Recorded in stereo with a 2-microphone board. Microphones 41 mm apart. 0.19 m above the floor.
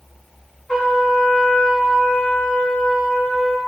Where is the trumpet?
15° left (ahead or behind), 1.6 m.